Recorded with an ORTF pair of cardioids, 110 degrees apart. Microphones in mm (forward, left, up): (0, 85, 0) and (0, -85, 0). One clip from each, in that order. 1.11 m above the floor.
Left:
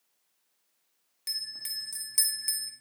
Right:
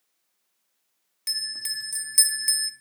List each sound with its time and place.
1.3 s a bell: 20° right, 0.7 m